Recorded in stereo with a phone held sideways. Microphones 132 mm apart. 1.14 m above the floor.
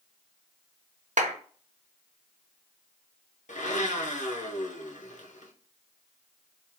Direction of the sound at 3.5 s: 70° left (ahead or behind).